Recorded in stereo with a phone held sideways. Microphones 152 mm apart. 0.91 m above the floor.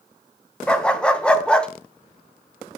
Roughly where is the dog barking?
Centre.